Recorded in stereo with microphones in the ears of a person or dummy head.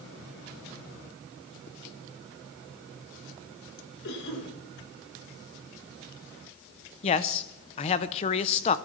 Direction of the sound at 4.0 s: 70° left (ahead or behind).